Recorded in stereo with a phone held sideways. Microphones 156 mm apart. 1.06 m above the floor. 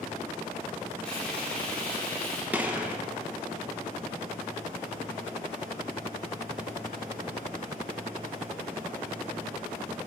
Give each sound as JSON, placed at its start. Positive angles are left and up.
{"t": 1.1, "sound": "frying", "side_deg": 5, "distance_m": 2.5}
{"t": 2.5, "sound": "a gunshot", "side_deg": -10, "distance_m": 0.9}